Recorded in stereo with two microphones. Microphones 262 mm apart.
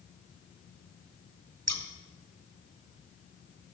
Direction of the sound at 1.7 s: 85° right.